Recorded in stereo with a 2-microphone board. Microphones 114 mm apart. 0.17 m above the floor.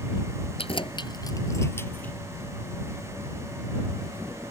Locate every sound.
0.6 s keys jangling: 55° left (ahead or behind); by 2.1 s 15° left (ahead or behind)